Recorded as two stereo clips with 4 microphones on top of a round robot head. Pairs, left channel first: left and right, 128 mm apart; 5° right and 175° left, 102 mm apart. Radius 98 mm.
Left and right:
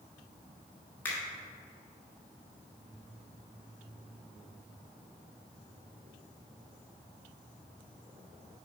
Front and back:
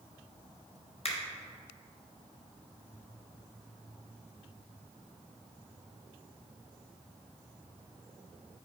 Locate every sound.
1.1 s a finger snap: 15° left, 1.3 m